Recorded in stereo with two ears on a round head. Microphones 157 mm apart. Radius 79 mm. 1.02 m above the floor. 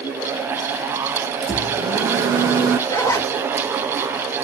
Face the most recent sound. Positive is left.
turn(degrees=15)  # may be behind; listen again after turning